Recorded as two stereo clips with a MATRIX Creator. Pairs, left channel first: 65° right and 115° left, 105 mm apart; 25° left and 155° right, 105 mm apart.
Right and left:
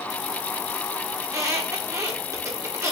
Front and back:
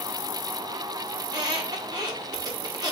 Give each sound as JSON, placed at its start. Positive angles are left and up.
{"t": 1.2, "sound": "a squeak", "azimuth_deg": 165, "distance_m": 0.8}